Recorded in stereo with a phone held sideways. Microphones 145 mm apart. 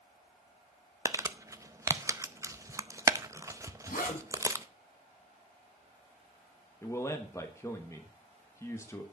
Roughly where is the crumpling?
Right.